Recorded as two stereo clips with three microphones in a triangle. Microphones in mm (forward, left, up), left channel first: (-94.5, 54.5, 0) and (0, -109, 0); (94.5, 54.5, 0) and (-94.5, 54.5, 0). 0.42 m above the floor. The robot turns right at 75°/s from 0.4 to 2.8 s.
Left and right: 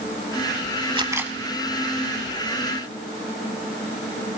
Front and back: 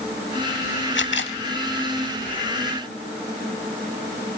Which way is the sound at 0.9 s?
Straight ahead.